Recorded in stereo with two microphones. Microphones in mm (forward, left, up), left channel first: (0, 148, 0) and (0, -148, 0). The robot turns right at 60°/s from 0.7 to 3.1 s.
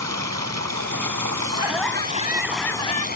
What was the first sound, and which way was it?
Running water, 115° right.